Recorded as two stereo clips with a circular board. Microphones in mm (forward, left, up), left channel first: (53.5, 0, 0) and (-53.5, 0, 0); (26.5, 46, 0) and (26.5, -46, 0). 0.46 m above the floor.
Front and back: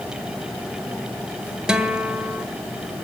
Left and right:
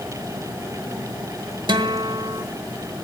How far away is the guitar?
About 1.5 m.